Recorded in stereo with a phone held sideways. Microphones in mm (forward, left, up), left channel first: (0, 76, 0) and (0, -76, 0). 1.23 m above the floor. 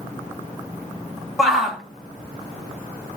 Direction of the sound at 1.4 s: Centre (ahead or behind).